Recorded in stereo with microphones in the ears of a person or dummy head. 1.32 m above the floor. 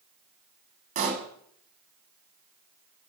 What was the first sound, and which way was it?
A pop, 35° right (ahead or behind).